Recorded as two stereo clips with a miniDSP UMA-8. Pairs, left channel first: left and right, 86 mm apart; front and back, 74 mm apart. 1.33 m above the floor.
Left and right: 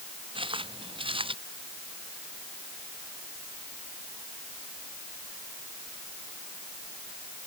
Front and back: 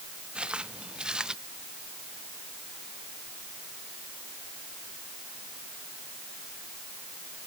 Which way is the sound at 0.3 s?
105° right.